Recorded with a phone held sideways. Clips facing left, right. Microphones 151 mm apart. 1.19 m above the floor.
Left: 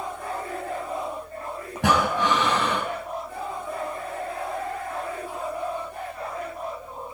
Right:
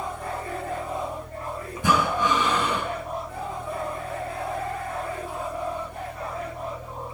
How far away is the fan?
About 1.6 m.